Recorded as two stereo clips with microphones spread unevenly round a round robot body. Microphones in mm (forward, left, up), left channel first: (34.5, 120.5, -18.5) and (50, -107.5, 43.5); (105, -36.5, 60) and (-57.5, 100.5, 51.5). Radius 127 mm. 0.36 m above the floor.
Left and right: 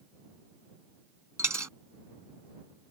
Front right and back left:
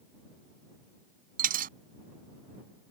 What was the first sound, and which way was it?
A dropped coin, 165° right.